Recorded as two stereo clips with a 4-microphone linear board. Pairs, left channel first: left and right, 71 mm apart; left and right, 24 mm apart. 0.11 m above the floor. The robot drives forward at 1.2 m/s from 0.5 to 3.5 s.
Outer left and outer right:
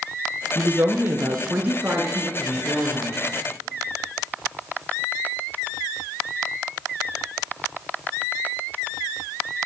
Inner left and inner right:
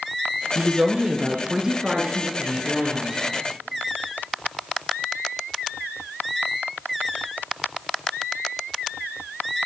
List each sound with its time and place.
0.6 s a woman speaking: 20° right (ahead or behind), 1.6 m; by 3.2 s 15° right (ahead or behind), 2.5 m